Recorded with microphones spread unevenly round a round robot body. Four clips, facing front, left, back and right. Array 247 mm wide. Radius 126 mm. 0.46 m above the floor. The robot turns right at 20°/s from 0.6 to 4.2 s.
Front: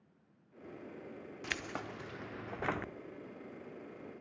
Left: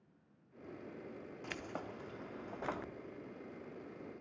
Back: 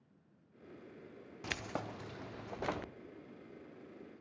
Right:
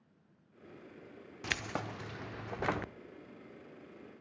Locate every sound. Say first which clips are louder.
1.4 s keys jangling: right 7 dB, back 1 dB; 85° right, 0.5 m; by 2.9 s 55° right, 0.5 m